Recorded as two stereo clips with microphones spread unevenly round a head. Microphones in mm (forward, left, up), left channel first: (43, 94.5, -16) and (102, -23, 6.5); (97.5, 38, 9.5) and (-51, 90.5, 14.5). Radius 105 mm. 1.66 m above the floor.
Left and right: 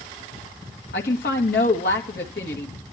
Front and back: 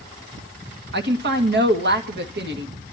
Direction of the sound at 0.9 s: 160° left.